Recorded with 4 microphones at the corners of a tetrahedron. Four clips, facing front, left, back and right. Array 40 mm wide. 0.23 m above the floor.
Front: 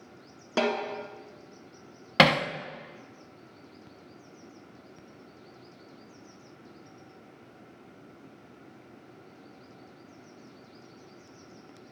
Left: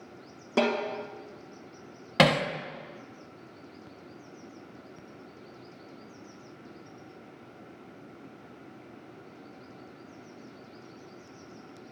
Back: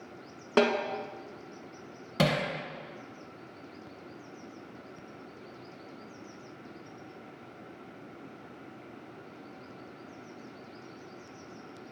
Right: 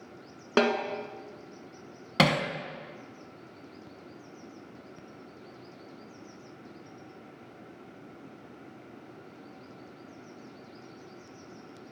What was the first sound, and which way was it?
A snare drum, 110° right.